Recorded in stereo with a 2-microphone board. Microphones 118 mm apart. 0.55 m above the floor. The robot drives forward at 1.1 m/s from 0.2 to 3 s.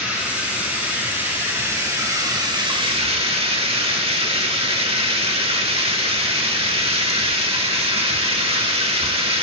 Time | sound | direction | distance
0.0 | running water | 15° right (ahead or behind) | 4 m